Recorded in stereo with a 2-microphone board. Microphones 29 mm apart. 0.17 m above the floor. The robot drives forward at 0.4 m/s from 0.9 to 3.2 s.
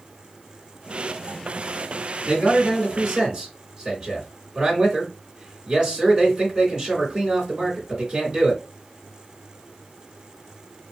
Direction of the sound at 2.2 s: 35° right (ahead or behind).